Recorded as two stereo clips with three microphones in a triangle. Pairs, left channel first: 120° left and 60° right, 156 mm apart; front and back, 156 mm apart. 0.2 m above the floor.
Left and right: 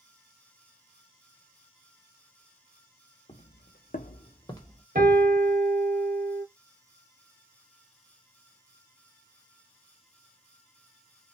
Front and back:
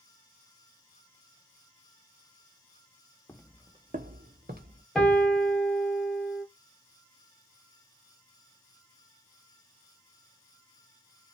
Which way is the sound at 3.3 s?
75° left.